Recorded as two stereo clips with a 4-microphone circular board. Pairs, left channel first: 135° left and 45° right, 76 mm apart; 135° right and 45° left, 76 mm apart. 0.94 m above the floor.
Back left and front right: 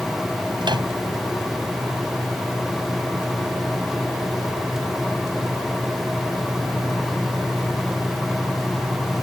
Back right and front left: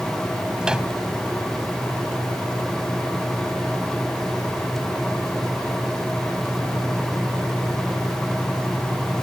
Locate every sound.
0.6 s a microwave: 35° right